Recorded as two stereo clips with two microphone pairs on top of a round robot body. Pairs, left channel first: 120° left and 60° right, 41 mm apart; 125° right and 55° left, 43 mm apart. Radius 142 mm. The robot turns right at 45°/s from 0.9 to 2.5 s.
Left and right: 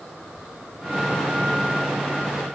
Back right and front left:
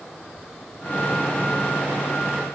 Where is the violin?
I don't hear a violin.